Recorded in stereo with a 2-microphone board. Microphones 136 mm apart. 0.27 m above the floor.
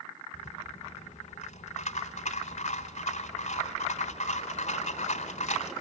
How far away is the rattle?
About 1.3 m.